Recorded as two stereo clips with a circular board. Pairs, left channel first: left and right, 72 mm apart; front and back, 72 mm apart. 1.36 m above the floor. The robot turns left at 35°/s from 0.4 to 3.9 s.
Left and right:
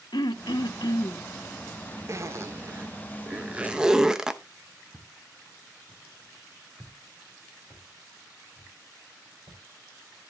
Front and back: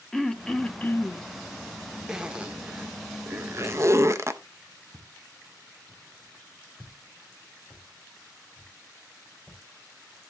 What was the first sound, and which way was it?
Throat clearing, 85° left.